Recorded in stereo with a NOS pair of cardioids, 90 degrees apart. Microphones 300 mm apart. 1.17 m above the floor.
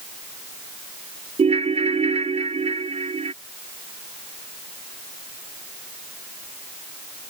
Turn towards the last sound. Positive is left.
turn(degrees=-20)